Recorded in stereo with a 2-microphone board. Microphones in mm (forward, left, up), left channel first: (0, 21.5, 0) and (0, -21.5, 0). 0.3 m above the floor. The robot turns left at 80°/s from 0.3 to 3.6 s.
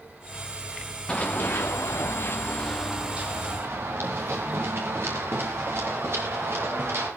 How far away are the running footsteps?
About 2 m.